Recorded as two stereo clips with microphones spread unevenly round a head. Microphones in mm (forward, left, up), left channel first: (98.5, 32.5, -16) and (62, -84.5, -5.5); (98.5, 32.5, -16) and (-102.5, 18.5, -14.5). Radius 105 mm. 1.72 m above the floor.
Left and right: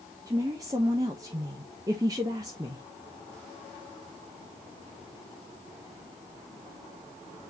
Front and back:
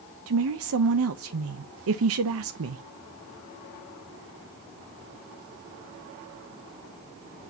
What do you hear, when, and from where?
0.3 s a woman speaking: 175° right, 0.7 m